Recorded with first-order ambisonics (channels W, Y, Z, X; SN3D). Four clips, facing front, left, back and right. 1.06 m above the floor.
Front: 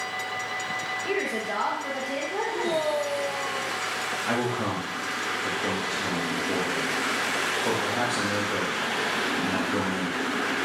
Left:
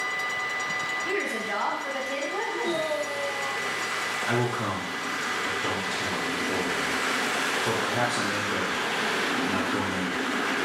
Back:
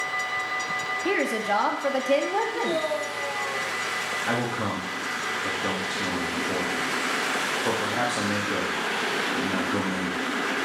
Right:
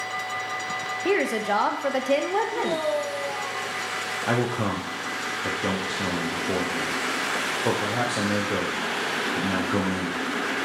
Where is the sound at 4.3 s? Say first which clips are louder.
Right 4 dB, front 2 dB; 90° right, 0.7 m.